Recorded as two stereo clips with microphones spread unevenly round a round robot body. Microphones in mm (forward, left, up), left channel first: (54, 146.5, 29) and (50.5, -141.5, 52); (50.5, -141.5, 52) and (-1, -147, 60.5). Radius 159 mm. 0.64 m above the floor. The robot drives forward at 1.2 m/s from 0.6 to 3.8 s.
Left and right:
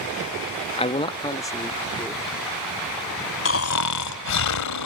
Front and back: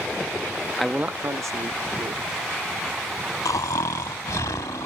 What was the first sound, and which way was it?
A man speaking, 50° left.